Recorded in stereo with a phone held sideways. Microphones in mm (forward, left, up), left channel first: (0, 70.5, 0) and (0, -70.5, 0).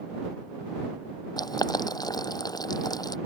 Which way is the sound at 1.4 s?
30° left (ahead or behind).